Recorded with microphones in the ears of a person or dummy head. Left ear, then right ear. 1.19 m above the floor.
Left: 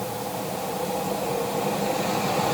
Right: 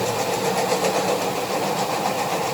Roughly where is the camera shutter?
No camera shutter in this recording.